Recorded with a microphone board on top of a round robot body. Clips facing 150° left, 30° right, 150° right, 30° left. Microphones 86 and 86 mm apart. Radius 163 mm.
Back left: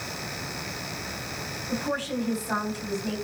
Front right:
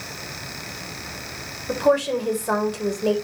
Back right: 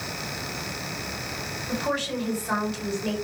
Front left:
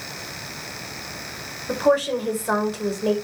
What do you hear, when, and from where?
1.7 s a woman speaking: 20° right, 4 m